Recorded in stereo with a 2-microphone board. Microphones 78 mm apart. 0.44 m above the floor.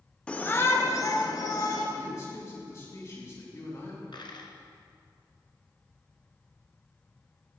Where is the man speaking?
45° left (ahead or behind), 4 m.